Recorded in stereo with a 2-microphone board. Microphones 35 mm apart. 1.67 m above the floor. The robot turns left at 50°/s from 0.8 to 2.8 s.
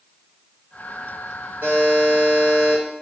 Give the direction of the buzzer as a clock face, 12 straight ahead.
2 o'clock.